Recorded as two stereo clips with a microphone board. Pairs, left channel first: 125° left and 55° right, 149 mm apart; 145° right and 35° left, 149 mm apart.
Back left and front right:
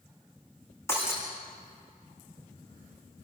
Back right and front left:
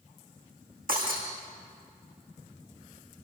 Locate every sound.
0.9 s breaking glass: 50° left, 7 m